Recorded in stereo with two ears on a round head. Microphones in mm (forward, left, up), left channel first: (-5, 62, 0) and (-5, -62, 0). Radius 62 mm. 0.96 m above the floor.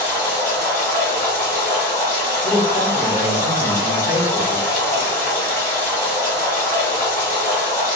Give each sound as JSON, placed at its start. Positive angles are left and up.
{"t": 0.0, "sound": "running water", "side_deg": 15, "distance_m": 1.2}
{"t": 2.4, "sound": "a man speaking", "side_deg": 65, "distance_m": 1.2}